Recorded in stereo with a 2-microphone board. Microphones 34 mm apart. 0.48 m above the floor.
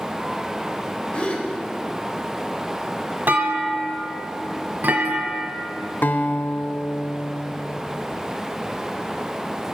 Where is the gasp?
30° left (ahead or behind), 1.4 m.